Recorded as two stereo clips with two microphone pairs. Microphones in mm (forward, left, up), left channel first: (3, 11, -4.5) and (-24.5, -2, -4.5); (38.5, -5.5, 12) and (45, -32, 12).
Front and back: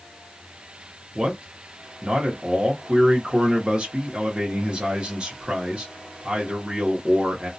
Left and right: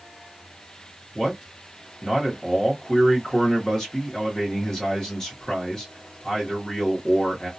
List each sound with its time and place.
1.1 s a man speaking: 170° left, 0.8 m